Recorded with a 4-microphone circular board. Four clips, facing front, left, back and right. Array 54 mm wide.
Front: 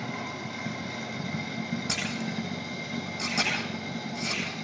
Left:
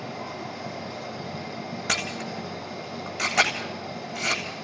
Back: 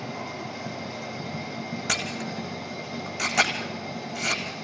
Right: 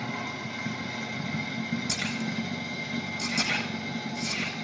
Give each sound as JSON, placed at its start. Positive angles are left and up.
{"t": 0.0, "sound": "running water", "azimuth_deg": -60, "distance_m": 3.5}
{"t": 1.9, "sound": "a camera shutter", "azimuth_deg": 120, "distance_m": 9.0}